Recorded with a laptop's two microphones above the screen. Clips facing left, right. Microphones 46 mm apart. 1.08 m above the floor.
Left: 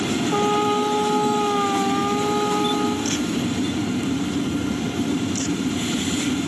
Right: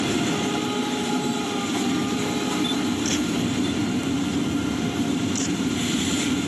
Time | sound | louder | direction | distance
0.3 | a trumpet | left 5 dB | 45° left (ahead or behind) | ?